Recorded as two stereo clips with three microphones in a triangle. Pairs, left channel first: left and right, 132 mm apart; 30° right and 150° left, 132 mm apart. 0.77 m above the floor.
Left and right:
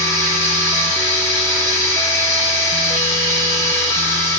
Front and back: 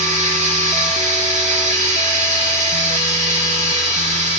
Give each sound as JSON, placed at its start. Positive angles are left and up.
{"t": 0.0, "sound": "running water", "azimuth_deg": 155, "distance_m": 0.7}